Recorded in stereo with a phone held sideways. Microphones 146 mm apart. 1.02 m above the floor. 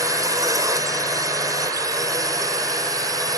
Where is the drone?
25° right (ahead or behind).